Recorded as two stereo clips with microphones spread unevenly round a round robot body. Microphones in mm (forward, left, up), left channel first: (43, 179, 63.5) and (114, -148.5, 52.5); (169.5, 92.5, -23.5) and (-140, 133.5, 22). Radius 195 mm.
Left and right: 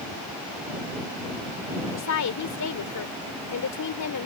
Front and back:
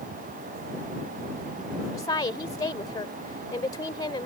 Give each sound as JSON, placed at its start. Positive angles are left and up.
{"t": 1.9, "sound": "a woman speaking", "azimuth_deg": 70}